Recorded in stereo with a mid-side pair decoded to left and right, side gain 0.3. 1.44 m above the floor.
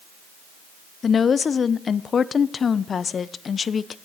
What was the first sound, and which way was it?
A woman speaking, 60° left.